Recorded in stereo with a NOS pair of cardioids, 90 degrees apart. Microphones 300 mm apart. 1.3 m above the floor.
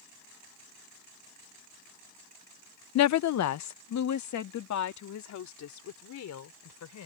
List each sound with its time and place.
3.0 s a woman speaking: 60° left; by 7.1 s 65° left